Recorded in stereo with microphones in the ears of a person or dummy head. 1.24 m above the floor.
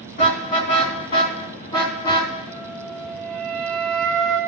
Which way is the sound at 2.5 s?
5° left (ahead or behind).